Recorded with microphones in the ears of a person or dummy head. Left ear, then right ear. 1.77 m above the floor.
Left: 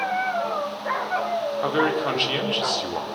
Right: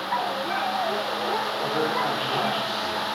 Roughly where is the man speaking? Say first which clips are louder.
Left 4 dB; left.